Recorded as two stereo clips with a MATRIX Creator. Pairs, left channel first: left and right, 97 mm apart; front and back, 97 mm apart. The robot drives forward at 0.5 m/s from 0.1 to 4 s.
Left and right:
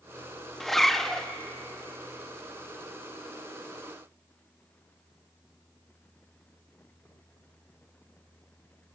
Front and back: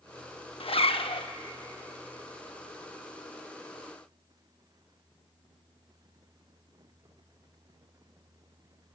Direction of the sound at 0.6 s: 5° left.